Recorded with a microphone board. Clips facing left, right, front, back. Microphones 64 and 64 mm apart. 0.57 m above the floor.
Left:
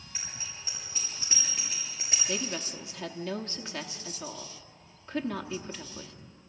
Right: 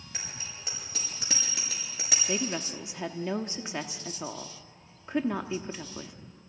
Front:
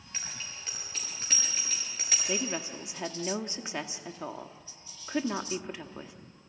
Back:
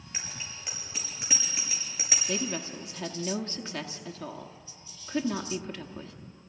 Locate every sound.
0.1 s a bicycle bell: 105° right, 8 m; by 2.2 s 100° right, 6.5 m
2.3 s a woman speaking: 45° right, 0.9 m